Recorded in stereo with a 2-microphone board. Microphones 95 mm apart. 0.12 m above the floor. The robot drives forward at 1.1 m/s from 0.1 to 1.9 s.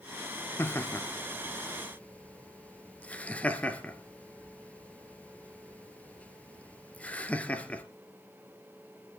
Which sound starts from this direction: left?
Laughter, at 0.6 s.